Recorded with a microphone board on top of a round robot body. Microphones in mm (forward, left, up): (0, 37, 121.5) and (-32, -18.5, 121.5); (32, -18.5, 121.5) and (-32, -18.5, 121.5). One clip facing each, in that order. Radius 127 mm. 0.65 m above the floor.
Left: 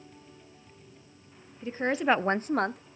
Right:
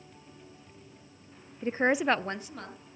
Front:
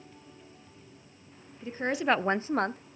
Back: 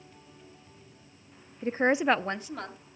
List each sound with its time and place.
1.6 s a woman speaking: 155° right, 0.8 m; by 2.9 s 40° left, 1.1 m